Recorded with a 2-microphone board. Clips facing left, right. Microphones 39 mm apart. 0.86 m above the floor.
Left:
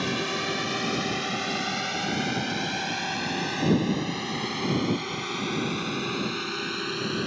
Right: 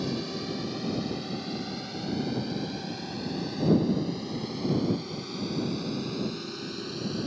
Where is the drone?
65° left (ahead or behind); by 7.3 s 55° left (ahead or behind).